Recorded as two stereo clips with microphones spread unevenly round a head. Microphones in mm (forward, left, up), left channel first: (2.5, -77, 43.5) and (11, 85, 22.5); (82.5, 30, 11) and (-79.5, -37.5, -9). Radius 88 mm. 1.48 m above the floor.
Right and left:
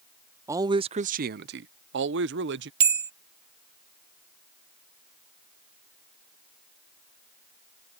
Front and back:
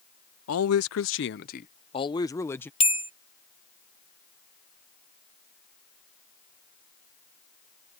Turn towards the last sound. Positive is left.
turn(degrees=60)